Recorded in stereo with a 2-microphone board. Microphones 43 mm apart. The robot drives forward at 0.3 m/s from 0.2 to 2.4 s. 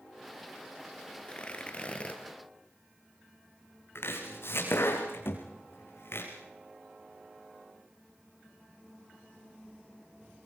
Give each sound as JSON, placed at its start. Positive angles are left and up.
{"t": 1.2, "sound": "tearing paper", "side_deg": 25, "distance_m": 2.5}
{"t": 4.0, "sound": "chopping", "side_deg": 70, "distance_m": 5.0}
{"t": 5.2, "sound": "a thud", "side_deg": 75, "distance_m": 4.5}